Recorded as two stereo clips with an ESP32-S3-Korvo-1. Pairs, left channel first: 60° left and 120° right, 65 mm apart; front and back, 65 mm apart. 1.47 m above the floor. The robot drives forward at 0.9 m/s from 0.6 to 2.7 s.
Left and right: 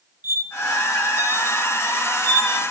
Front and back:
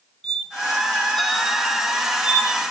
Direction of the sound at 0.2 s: 75° right.